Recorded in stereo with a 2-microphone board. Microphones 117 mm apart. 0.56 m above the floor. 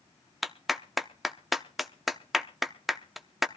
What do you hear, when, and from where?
0.4 s a clap: centre (ahead or behind), 0.7 m